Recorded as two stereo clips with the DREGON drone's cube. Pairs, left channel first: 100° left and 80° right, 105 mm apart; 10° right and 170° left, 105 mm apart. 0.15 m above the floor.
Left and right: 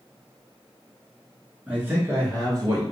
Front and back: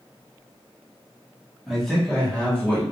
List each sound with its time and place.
1.7 s a man speaking: 105° right, 1.0 m; by 2.8 s 80° right, 1.4 m